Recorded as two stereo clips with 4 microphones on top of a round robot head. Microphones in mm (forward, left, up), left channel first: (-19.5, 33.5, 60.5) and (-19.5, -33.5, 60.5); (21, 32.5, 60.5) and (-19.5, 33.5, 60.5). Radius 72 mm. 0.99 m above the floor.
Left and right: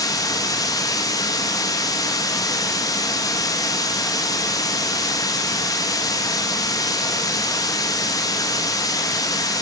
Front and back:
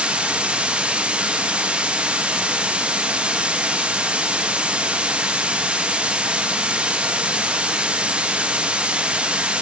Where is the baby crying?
I don't hear a baby crying.